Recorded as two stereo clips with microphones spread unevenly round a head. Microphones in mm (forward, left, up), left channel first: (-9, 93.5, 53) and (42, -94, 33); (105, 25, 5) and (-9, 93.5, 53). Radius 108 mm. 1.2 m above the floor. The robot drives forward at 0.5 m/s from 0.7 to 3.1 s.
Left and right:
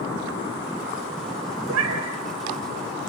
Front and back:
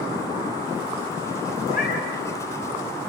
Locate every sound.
1.7 s a cat meowing: 75° right, 3.5 m